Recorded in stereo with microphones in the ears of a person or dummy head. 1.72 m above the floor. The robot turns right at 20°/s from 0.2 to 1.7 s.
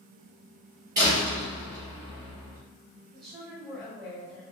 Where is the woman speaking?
20° right (ahead or behind), 1.1 m.